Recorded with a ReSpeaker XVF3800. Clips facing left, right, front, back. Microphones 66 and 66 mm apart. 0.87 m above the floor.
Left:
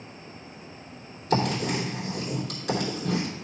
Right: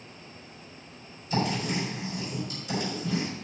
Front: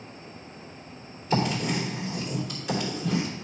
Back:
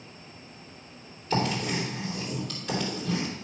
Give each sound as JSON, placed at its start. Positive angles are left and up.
{"t": 1.3, "sound": "writing", "azimuth_deg": 85, "distance_m": 3.5}